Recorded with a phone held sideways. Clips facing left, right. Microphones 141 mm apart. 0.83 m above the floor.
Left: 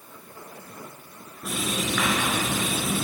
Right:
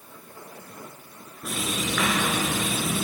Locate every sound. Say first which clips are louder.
1.4 s writing: left 1 dB; centre (ahead or behind), 5 m